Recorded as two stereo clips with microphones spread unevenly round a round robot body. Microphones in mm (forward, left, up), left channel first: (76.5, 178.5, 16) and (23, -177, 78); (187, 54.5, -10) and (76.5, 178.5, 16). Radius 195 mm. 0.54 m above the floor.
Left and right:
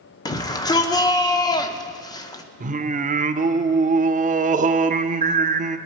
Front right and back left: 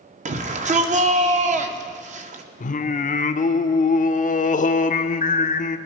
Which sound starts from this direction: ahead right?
Singing, at 2.6 s.